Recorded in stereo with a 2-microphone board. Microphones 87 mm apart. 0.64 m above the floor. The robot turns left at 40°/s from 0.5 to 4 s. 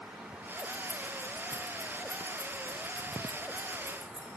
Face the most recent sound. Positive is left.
turn(degrees=-20)  # may be behind; listen again after turning